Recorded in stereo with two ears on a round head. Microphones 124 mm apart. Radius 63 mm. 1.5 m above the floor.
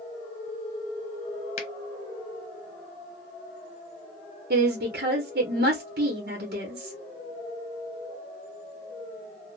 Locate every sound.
1.6 s a finger snap: 45° left (ahead or behind), 0.9 m
4.5 s a woman speaking: 70° right (ahead or behind), 0.9 m